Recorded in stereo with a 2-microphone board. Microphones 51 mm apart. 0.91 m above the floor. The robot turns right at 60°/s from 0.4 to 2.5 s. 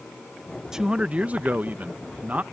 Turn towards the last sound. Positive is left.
turn(degrees=-55)